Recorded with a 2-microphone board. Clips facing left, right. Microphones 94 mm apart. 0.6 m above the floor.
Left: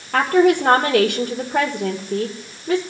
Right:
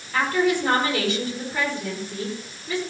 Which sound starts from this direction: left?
A woman speaking, at 0.1 s.